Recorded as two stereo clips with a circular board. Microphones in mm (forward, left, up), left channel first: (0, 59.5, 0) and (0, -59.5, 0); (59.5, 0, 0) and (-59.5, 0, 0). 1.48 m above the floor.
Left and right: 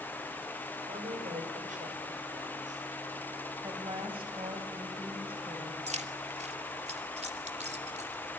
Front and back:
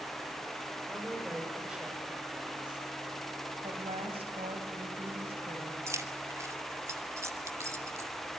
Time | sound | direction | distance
0.9 | a woman speaking | 100° right | 8 m
3.6 | a woman speaking | 135° right | 8.5 m
5.9 | keys jangling | 115° right | 2 m